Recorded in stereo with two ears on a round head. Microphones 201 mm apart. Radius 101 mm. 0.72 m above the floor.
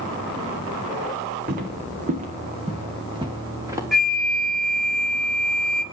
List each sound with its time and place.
1.5 s footsteps: 40° right (ahead or behind), 3 m; by 3.8 s 10° right (ahead or behind), 2.5 m
3.9 s a flute: centre (ahead or behind), 1.7 m